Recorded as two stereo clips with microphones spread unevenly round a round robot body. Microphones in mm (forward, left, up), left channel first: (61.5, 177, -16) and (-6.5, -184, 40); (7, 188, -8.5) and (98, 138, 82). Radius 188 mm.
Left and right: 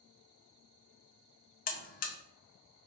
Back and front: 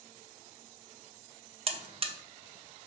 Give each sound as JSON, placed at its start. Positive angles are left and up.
{"t": 1.7, "sound": "a buzzer", "azimuth_deg": 60, "distance_m": 0.6}